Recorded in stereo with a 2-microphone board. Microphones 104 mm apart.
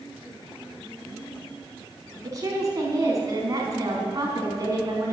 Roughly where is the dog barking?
I don't hear a dog barking.